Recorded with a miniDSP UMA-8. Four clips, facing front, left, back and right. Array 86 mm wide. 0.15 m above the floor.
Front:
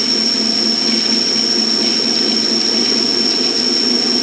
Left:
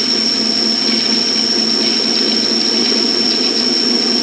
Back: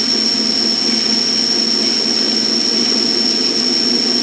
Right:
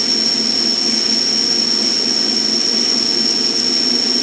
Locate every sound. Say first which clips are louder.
0.0 s an insect: left 4 dB, even; 145° right